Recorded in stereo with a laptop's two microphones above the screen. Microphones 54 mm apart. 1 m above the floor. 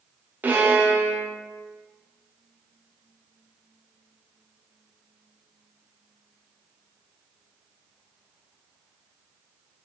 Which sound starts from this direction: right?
A violin, at 0.4 s.